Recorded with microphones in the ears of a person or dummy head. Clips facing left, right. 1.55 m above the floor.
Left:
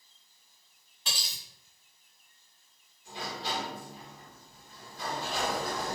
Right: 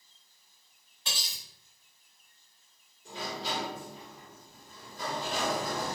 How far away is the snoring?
No snoring in this recording.